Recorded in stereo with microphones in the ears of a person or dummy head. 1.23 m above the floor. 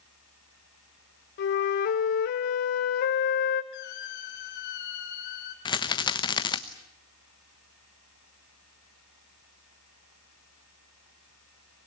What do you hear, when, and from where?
1.4 s a flute: 55° left (ahead or behind), 1.4 m
3.7 s a squeak: 60° left (ahead or behind), 3 m
5.7 s a rattle: 30° left (ahead or behind), 1.0 m